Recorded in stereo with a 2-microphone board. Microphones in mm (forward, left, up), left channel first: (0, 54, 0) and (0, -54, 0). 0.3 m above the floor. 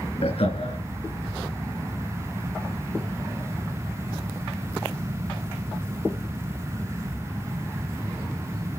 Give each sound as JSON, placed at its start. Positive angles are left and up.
{"t": 0.2, "sound": "laughter", "side_deg": 70, "distance_m": 5.0}